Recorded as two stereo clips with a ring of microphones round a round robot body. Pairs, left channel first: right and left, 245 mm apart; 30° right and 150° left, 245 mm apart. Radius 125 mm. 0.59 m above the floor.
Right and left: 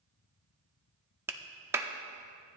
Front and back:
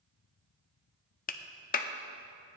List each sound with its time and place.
1.3 s a clap: 15° left, 0.7 m